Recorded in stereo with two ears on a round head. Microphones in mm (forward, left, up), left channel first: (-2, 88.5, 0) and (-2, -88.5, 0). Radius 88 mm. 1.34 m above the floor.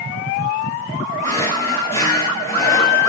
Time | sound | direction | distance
1.2 | a drawer | 15° left (ahead or behind) | 3 m